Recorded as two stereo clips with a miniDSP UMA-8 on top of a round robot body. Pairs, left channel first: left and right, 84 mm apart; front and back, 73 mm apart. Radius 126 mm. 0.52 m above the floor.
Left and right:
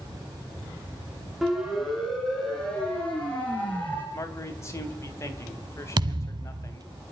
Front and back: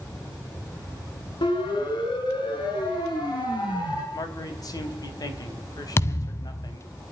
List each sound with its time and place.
1.4 s a siren: straight ahead, 5.5 m; by 4.0 s 20° left, 7 m
4.1 s a man speaking: 35° left, 3.5 m
6.0 s a thud: 55° right, 1.1 m